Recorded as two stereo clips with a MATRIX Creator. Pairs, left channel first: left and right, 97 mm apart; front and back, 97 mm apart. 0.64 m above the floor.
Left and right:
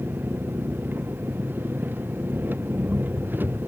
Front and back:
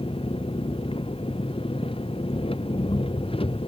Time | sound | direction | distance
0.0 | an engine running | 20° right | ?